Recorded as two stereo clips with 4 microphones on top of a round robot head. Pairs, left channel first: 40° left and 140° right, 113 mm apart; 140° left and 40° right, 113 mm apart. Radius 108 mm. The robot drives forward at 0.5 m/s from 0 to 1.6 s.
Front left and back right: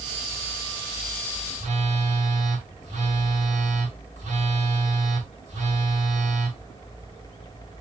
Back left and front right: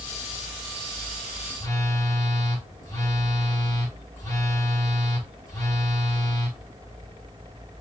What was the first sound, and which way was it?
A phone buzzing, 155° right.